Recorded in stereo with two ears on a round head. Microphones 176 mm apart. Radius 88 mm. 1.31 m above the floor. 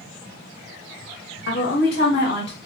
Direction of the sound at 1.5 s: 55° left (ahead or behind).